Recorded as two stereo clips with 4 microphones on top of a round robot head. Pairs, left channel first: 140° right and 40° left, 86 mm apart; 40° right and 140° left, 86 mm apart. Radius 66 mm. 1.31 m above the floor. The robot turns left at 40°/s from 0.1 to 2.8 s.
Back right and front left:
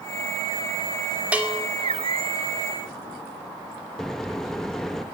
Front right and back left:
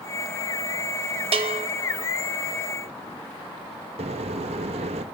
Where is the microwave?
135° left, 1.1 m.